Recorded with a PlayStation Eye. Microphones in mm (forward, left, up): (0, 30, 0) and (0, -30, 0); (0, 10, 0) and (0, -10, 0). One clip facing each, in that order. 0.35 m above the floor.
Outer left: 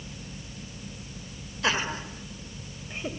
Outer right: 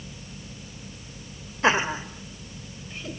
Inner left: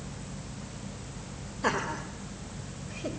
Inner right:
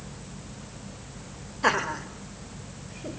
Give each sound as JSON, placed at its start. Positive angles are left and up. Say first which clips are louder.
{"t": 1.6, "sound": "laughter", "louder": "outer right 6 dB, inner right 5 dB", "side_deg": -30, "distance_m": 1.5}